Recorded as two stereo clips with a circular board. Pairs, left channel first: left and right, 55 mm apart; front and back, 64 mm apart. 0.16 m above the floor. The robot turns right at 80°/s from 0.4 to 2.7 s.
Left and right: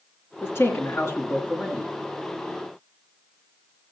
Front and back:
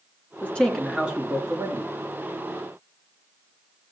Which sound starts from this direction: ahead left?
A man speaking, at 0.4 s.